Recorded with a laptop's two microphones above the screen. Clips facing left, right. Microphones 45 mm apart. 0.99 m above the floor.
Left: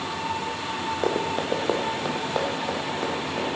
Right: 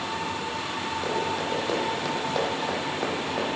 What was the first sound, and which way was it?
Running footsteps, 45° left (ahead or behind).